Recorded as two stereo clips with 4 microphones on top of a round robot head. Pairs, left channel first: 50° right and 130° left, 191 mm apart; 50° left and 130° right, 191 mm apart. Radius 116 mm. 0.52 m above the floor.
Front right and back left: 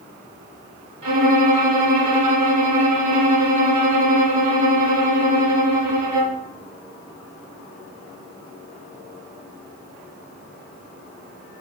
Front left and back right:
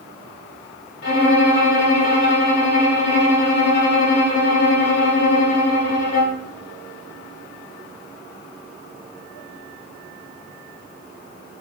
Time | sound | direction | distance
1.0 | a violin | 75° left | 1.4 m